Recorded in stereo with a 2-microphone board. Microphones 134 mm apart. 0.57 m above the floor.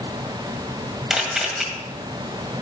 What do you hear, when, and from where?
1.1 s a camera shutter: 5° right (ahead or behind), 1.8 m